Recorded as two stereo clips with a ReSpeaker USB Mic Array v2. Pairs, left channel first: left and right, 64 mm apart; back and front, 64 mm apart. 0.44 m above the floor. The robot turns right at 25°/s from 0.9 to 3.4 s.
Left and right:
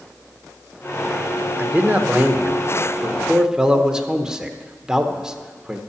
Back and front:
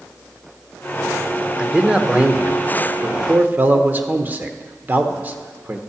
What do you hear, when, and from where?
1.6 s a man speaking: 65° right, 0.8 m; by 5.8 s 20° right, 0.8 m